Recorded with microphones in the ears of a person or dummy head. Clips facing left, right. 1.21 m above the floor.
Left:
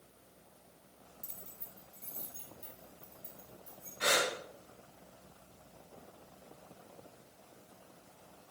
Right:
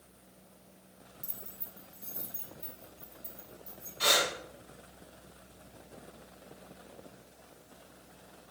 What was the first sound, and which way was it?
Keys jangling, 5° right (ahead or behind).